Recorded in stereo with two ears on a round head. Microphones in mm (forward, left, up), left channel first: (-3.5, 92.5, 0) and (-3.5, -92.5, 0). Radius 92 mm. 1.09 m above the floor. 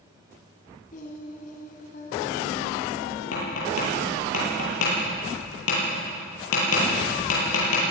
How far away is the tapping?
About 10 m.